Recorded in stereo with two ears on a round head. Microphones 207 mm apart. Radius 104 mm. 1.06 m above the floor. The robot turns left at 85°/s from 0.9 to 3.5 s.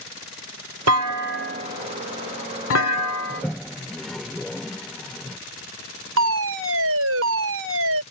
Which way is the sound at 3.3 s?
15° left (ahead or behind).